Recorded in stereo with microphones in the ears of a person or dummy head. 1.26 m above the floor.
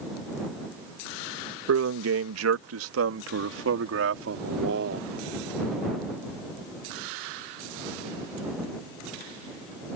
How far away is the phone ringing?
No phone ringing in this recording.